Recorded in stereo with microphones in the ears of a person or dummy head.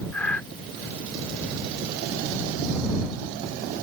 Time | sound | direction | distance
0.1 | breathing | 5° left (ahead or behind) | ?